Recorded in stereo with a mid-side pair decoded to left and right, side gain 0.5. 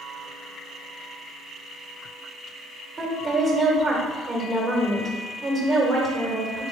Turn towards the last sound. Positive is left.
turn(degrees=-35)